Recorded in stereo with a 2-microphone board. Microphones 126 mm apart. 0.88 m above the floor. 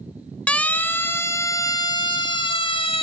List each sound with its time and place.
0.5 s a siren: 10° left (ahead or behind), 2 m; by 3.0 s 45° left (ahead or behind), 2.5 m